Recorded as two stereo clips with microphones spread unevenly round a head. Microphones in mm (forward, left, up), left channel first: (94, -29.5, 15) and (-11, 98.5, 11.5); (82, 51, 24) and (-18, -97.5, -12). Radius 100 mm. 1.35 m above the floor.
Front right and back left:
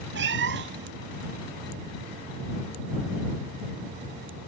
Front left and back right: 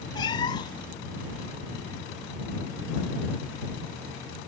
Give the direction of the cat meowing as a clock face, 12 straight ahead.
8 o'clock.